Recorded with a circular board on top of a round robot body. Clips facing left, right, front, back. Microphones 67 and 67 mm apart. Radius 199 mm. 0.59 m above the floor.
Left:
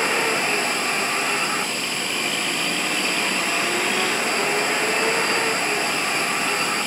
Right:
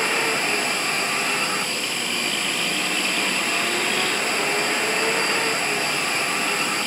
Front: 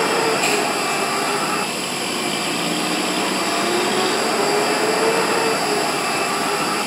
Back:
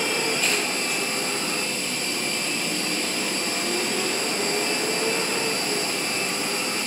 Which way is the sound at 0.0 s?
5° left.